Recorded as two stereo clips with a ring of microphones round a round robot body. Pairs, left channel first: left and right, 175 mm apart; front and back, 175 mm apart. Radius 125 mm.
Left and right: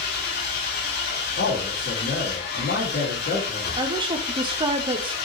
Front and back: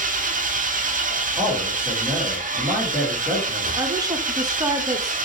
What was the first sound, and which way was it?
An engine running, 135° left.